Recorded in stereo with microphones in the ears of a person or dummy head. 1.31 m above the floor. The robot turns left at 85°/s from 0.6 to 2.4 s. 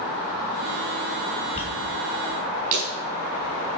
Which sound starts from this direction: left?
A dropped coin, at 1.6 s.